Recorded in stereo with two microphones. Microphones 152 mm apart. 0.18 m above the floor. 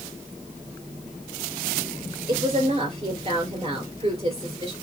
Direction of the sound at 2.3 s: 40° right (ahead or behind).